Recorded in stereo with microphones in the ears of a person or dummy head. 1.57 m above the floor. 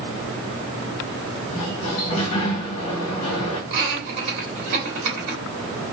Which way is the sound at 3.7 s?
55° right (ahead or behind).